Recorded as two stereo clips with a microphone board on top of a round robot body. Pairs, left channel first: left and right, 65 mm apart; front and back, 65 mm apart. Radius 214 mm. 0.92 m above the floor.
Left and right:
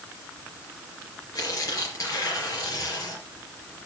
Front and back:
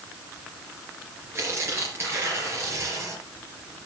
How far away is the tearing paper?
About 4 m.